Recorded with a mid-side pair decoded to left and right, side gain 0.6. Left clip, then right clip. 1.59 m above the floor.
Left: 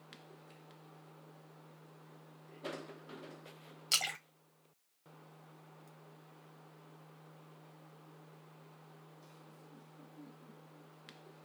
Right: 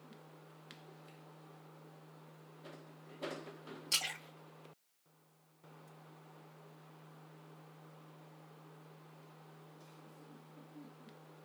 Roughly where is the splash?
Ahead left.